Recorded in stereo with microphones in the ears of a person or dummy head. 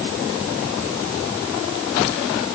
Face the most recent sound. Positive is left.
No sound to turn to.